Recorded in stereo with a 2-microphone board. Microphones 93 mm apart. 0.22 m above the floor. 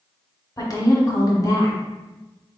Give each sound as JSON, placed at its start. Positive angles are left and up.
{"t": 0.6, "sound": "a woman speaking", "side_deg": 40, "distance_m": 1.4}